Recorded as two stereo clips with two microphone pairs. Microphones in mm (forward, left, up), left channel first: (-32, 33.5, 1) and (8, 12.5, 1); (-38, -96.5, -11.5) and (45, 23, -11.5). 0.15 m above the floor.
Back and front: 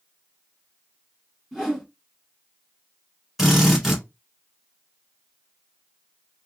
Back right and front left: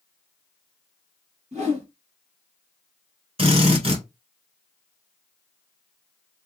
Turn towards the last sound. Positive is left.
turn(degrees=55)